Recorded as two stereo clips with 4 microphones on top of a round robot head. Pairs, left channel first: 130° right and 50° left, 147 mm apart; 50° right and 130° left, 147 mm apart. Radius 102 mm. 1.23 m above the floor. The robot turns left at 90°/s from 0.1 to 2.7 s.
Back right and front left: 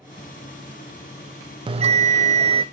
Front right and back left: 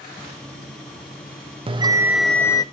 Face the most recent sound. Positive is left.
turn(degrees=0)